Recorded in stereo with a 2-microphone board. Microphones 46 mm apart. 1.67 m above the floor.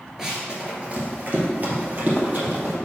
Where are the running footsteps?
10° right (ahead or behind), 1.7 m; by 2.7 s 45° right (ahead or behind), 3 m.